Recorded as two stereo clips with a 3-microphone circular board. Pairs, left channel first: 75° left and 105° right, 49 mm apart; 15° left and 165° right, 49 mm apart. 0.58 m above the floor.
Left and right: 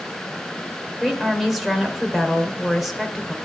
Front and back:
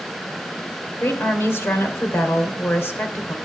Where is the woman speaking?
15° right, 2.5 m.